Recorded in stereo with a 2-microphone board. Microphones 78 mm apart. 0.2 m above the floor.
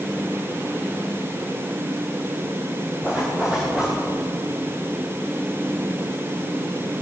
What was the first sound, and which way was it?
A zipper, 10° right (ahead or behind).